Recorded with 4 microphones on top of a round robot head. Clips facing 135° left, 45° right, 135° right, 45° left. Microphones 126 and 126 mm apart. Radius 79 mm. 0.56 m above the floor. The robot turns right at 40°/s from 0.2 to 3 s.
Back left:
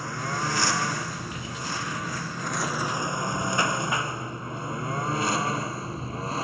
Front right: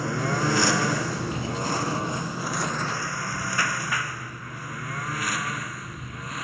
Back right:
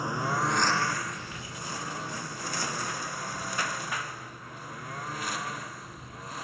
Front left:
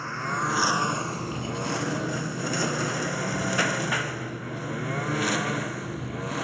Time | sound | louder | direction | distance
0.0 | a lawn mower | front right 5 dB, back right 1 dB | 60° right | ?